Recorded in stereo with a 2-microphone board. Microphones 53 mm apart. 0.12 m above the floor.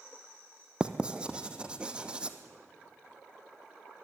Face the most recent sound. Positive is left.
turn(degrees=-20)  # may be behind; listen again after turning